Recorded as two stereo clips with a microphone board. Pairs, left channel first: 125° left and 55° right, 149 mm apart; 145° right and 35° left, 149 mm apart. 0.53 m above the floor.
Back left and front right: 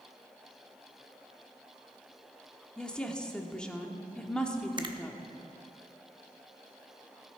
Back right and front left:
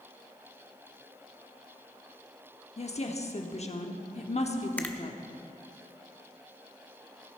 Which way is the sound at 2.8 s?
155° right.